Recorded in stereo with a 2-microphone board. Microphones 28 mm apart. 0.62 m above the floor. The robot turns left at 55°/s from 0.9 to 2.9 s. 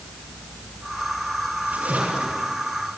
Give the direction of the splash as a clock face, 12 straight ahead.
2 o'clock.